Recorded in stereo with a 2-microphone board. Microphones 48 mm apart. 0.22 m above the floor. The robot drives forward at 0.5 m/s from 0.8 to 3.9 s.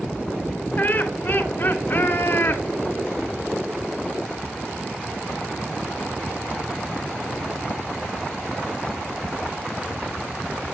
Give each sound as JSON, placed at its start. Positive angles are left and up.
{"t": 0.8, "sound": "laughter", "side_deg": 30, "distance_m": 2.5}